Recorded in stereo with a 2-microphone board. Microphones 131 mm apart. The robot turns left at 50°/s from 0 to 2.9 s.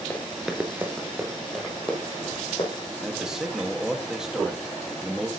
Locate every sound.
0.1 s running footsteps: 15° left (ahead or behind), 1.1 m; by 2.7 s 45° left (ahead or behind), 3 m
3.0 s a man speaking: 5° right (ahead or behind), 1.6 m